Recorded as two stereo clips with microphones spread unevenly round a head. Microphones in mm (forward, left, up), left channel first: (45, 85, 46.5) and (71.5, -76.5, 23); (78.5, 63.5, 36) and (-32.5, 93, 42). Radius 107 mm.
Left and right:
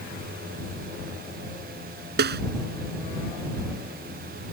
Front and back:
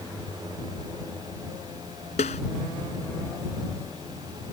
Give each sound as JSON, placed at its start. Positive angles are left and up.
{"t": 2.2, "sound": "a snare drum", "azimuth_deg": -65}